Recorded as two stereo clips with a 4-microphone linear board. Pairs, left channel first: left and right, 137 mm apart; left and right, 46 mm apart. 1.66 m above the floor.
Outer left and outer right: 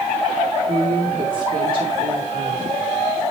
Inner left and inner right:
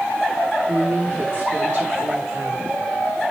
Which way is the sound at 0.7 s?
80° right.